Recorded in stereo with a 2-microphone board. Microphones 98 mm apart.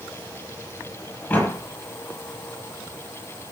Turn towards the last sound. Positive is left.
turn(degrees=20)  # may be behind; listen again after turning